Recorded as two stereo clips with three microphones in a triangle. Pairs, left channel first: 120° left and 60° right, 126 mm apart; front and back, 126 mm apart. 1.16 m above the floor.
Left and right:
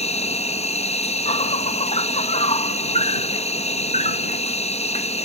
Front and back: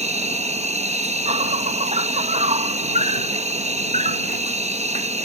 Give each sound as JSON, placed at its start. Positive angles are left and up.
{"t": 0.0, "sound": "an insect", "azimuth_deg": 150}